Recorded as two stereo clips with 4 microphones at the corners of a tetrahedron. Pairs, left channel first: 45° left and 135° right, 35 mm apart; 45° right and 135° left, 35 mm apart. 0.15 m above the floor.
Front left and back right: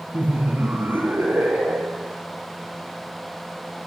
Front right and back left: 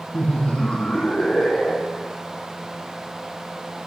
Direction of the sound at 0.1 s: 95° right.